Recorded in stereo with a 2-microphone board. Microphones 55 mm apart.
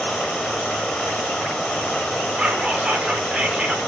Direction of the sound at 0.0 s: 10° left (ahead or behind).